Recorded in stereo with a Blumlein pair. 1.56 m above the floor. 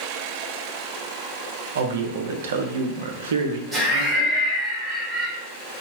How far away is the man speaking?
About 0.6 m.